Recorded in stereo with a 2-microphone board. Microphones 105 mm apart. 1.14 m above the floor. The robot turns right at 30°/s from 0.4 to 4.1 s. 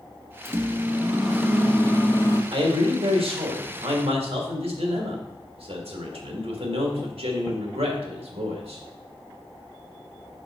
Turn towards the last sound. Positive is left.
turn(degrees=-75)